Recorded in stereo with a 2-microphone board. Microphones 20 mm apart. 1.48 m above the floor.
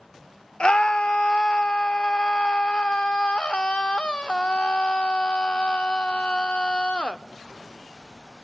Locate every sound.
0.6 s a scream: 50° left (ahead or behind), 0.7 m